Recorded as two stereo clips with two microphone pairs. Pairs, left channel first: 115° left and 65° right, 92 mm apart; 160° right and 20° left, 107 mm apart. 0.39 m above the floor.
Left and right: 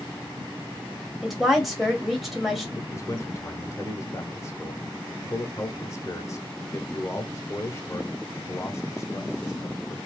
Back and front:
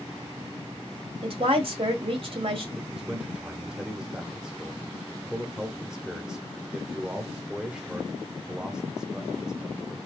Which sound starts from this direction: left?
A man speaking, at 2.8 s.